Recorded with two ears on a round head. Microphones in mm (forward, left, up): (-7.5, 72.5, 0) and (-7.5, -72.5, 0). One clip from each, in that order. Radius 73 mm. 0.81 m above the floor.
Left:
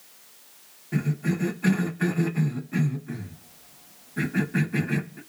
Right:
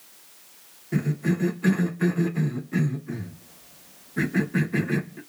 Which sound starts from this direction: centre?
A cough, at 0.9 s.